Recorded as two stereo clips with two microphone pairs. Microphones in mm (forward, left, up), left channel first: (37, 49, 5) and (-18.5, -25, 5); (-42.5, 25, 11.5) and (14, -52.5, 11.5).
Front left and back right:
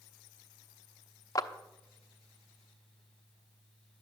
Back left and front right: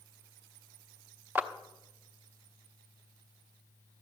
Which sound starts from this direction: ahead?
A clap, at 1.4 s.